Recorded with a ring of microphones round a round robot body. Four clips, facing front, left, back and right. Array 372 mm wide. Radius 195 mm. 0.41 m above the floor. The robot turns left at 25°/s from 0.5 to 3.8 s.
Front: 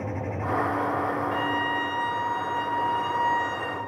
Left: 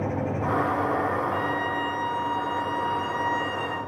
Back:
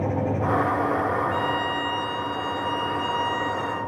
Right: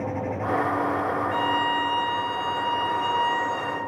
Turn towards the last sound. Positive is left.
turn(degrees=-170)